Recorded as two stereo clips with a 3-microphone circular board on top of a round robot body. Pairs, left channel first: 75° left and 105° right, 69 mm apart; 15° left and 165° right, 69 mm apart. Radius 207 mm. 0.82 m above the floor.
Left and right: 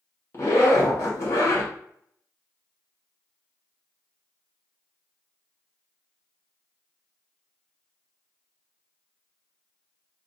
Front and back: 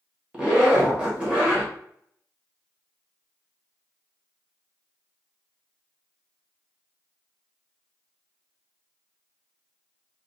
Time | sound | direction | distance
0.3 | a zipper | 120° left | 1.1 m